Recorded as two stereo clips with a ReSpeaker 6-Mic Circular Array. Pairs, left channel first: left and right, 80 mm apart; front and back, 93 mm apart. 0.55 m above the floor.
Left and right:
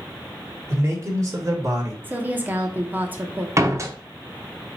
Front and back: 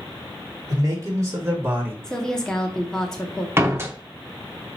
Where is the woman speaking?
70° right, 0.8 m.